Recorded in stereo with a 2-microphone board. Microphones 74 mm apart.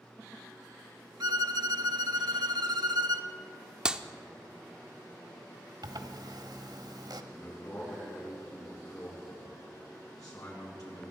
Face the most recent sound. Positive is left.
turn(degrees=50)  # may be behind; listen again after turning